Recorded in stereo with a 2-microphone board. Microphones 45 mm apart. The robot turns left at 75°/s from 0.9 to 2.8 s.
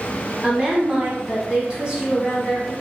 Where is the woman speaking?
25° right (ahead or behind), 1.1 m; by 2.7 s 10° left (ahead or behind), 1.1 m.